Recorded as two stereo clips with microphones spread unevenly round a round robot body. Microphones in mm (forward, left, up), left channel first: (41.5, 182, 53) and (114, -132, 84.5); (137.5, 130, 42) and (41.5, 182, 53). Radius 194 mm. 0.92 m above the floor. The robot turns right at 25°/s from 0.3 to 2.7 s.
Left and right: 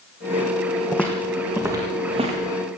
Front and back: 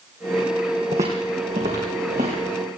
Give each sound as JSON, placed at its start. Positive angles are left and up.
{"t": 0.9, "sound": "footsteps", "azimuth_deg": -170, "distance_m": 2.5}